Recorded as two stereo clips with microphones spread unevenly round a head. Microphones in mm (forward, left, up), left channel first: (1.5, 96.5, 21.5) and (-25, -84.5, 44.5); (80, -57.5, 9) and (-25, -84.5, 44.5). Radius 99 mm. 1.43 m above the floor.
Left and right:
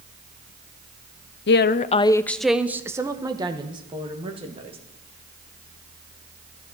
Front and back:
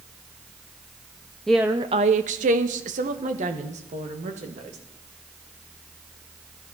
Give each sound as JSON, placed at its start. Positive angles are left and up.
{"t": 1.5, "sound": "a woman speaking", "azimuth_deg": 95, "distance_m": 0.6}